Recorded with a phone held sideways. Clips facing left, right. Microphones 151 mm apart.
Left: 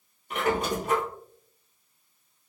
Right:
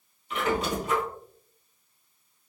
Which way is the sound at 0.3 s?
50° left (ahead or behind).